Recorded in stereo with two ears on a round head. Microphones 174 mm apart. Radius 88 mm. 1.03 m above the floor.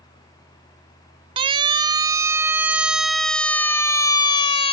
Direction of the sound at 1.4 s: 30° right (ahead or behind).